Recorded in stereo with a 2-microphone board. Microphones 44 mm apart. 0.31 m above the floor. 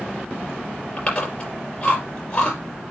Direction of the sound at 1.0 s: 35° left (ahead or behind).